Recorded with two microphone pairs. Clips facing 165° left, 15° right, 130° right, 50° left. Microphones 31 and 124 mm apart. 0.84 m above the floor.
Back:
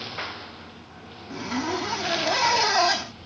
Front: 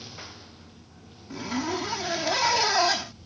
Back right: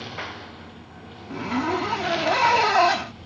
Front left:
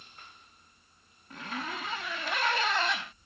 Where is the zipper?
110° right.